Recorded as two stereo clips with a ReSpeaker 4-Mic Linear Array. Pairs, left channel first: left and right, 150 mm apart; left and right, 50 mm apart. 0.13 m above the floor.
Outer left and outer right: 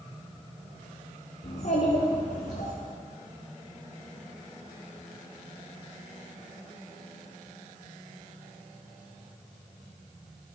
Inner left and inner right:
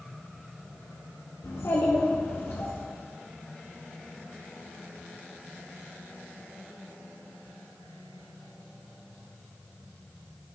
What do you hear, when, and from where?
1.4 s a child speaking: 65° left (ahead or behind), 1.9 m